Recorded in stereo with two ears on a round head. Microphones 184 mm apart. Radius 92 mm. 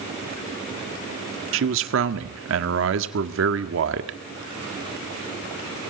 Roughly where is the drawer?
No drawer in this recording.